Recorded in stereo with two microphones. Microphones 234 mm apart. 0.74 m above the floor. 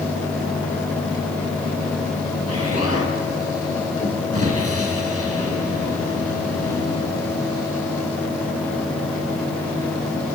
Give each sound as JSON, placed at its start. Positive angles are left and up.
{"t": 2.5, "sound": "an explosion", "side_deg": 80, "distance_m": 6.0}